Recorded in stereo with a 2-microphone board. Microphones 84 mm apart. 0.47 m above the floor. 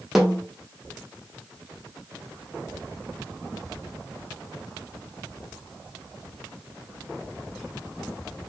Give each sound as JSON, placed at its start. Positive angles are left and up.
{"t": 0.1, "sound": "a snare drum", "side_deg": -5, "distance_m": 1.3}